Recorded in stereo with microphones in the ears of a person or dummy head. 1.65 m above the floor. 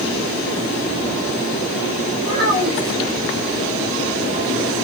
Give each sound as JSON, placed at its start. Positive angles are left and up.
{"t": 2.2, "sound": "a child speaking", "side_deg": -45, "distance_m": 1.6}